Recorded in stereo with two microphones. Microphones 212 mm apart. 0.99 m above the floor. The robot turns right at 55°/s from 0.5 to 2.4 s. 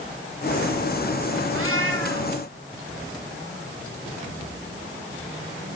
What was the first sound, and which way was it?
A cat meowing, 100° right.